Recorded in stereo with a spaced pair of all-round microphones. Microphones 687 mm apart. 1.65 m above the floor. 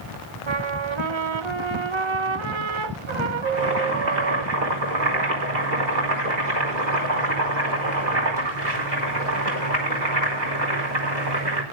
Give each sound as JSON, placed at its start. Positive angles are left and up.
{"t": 0.5, "sound": "a trumpet", "side_deg": -45, "distance_m": 1.0}
{"t": 3.5, "sound": "boiling", "side_deg": -80, "distance_m": 5.0}